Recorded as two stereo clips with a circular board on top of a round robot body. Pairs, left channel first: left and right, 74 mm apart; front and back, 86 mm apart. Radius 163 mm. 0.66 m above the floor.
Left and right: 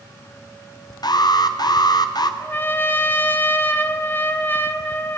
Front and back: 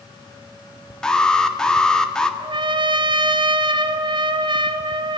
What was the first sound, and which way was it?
An alarm, 80° left.